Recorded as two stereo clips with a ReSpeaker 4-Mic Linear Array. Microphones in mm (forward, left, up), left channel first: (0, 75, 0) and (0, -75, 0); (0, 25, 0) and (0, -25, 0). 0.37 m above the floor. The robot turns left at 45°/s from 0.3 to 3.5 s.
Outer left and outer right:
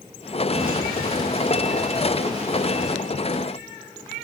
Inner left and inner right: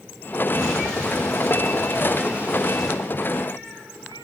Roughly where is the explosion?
Right.